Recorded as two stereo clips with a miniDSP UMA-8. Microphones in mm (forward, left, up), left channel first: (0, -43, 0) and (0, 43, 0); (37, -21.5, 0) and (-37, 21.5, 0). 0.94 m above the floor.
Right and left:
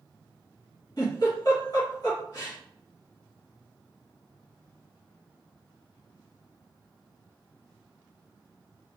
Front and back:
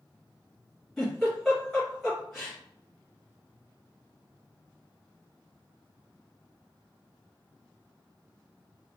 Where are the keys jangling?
No keys jangling in this recording.